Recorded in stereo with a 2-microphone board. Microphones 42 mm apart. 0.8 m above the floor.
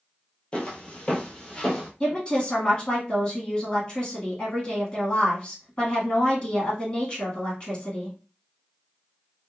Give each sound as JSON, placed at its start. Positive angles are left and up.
{"t": 0.5, "sound": "footsteps", "side_deg": 25, "distance_m": 0.9}
{"t": 2.0, "sound": "a woman speaking", "side_deg": 25, "distance_m": 1.7}